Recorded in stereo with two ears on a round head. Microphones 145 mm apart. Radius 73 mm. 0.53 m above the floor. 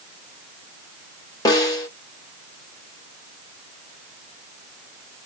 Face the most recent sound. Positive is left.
turn(degrees=25)  # may be behind; listen again after turning